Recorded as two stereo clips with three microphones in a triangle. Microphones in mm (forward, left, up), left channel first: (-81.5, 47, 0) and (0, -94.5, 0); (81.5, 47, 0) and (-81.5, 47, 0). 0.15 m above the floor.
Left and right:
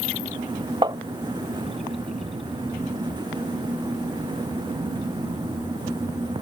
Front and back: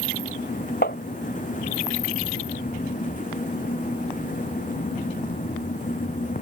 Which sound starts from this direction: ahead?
Tapping, at 0.8 s.